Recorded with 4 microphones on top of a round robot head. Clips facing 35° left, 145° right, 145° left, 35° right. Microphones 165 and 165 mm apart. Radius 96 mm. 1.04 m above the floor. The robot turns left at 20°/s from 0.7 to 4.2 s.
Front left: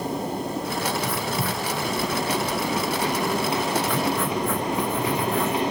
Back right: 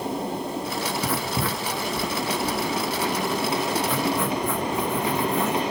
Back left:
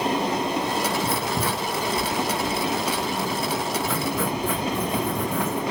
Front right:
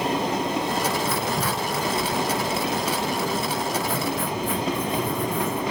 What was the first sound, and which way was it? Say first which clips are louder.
Writing: even, even; 155° right.